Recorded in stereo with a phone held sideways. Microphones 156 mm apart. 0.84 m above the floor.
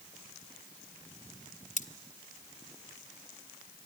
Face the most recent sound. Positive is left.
turn(degrees=55)  # may be behind; listen again after turning